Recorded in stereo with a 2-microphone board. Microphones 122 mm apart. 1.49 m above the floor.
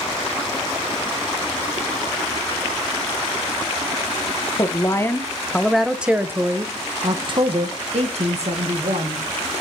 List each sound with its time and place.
4.6 s a woman speaking: 30° left (ahead or behind), 1.4 m; by 9.2 s 70° right (ahead or behind), 2 m